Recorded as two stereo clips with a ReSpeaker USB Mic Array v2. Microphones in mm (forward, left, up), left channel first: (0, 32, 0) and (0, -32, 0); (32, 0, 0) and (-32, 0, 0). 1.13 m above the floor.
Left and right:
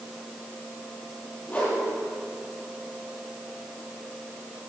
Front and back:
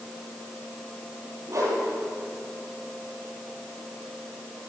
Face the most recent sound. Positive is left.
turn(degrees=150)